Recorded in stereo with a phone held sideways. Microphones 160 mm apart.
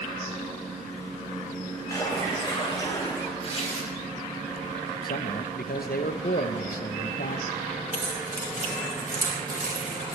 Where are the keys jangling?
70° right (ahead or behind), 5 m.